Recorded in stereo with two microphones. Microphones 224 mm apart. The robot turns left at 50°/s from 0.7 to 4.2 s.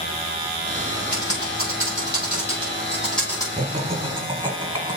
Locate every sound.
1.1 s typing on a keyboard: 80° right, 5 m; by 3.5 s 20° left (ahead or behind), 5 m
3.6 s laughter: 105° right, 1.3 m; by 5.0 s 135° right, 1.3 m